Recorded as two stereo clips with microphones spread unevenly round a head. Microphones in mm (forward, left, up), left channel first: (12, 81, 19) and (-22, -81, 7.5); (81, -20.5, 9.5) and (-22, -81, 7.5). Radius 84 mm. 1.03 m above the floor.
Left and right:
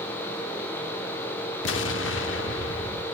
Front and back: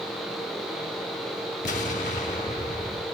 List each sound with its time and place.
1.6 s an explosion: 75° left, 1.2 m